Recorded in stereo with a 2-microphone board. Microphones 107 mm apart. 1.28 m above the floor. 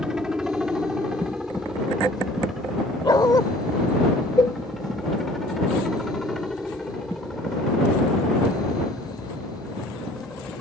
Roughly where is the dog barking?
Left.